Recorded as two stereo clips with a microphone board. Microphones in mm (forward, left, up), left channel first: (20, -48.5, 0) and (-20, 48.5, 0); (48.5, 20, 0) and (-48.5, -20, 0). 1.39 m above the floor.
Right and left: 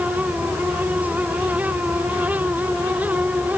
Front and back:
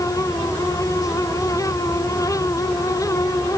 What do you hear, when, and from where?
Only background noise.